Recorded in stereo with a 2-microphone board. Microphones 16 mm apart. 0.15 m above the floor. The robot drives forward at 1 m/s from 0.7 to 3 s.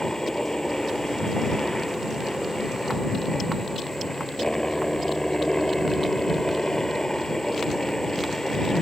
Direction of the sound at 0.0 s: 40° left (ahead or behind).